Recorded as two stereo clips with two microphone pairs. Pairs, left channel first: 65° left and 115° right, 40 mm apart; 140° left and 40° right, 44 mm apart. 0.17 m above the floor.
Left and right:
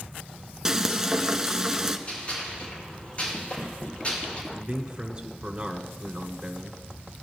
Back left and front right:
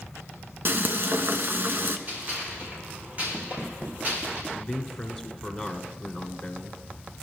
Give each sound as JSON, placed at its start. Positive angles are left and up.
{"t": 0.7, "sound": "frying", "azimuth_deg": -40, "distance_m": 0.8}
{"t": 2.1, "sound": "a gunshot", "azimuth_deg": 15, "distance_m": 5.5}
{"t": 4.5, "sound": "a man speaking", "azimuth_deg": -130, "distance_m": 1.2}